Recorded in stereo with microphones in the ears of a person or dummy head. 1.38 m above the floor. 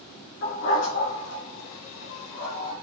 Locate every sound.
0.4 s a dog barking: 60° left (ahead or behind), 3.5 m; by 2.7 s 70° left (ahead or behind), 3 m